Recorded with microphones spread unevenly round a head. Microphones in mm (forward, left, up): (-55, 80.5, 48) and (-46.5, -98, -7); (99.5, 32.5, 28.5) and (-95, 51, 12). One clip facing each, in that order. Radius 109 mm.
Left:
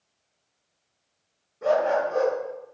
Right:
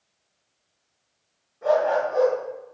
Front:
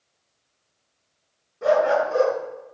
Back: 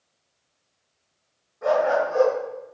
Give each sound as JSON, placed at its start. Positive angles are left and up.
{"t": 1.6, "sound": "a dog barking", "azimuth_deg": 45, "distance_m": 8.0}